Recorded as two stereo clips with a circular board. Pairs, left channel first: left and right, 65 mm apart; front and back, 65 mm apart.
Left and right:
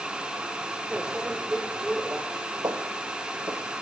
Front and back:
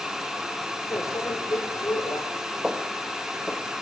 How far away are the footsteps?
About 2 m.